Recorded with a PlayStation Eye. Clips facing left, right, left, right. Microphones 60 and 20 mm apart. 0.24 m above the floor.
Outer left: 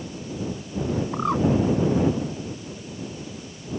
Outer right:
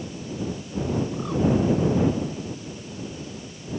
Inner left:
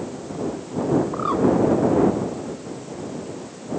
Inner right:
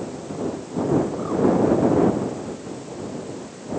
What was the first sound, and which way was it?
A bird, 50° left (ahead or behind).